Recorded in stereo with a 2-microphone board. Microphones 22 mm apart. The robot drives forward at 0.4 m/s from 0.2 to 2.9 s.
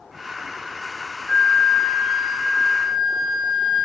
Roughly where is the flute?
Left.